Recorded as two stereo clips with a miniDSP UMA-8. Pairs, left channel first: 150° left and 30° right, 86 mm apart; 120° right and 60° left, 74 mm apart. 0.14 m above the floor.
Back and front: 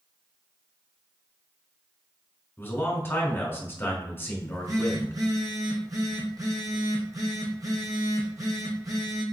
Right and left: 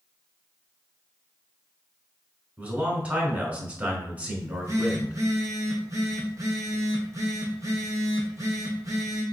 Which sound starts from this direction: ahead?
A phone buzzing, at 4.4 s.